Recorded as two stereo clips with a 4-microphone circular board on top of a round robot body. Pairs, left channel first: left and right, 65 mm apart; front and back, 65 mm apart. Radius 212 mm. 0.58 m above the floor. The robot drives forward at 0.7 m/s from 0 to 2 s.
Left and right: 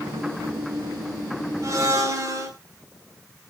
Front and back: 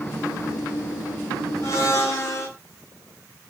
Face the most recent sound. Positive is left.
turn(degrees=-50)